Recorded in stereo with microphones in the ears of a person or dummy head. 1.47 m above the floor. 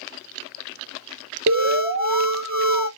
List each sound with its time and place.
1.5 s an alarm: 65° right (ahead or behind), 0.9 m